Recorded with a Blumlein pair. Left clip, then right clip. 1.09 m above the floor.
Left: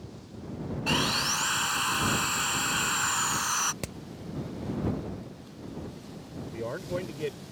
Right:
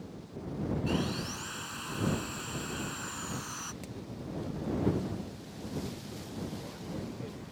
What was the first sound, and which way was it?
Sawing, 35° left.